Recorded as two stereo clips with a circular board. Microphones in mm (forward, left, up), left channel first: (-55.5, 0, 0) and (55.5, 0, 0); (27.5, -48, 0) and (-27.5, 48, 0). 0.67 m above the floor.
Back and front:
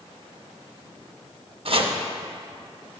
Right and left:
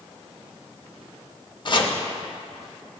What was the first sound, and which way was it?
Chopping, 20° right.